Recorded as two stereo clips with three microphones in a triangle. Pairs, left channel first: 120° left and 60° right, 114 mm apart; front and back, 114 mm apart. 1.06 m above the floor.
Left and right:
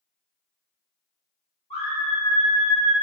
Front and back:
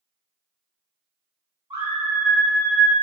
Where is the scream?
140° left, 1.1 m.